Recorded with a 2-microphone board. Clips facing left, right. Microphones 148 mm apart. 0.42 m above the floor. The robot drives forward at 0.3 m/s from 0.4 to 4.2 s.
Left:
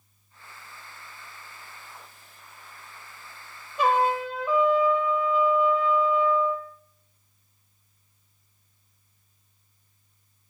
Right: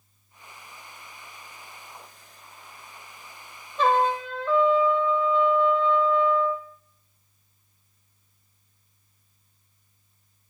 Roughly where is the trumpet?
Centre.